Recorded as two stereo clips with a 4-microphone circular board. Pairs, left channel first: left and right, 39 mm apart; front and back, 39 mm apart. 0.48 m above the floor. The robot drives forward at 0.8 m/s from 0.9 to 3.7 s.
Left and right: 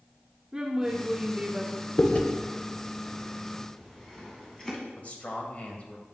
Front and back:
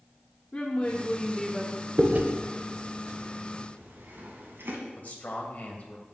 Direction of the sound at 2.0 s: 135° left.